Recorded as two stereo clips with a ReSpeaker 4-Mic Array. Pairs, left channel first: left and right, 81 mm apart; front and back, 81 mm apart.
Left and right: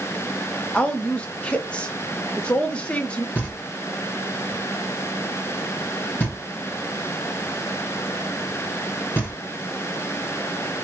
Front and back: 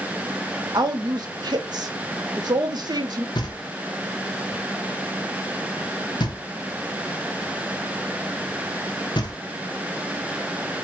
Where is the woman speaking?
165° left, 0.8 m.